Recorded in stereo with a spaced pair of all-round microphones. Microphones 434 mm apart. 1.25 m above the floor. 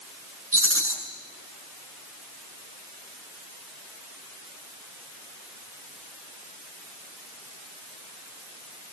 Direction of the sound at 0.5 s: 30° right (ahead or behind).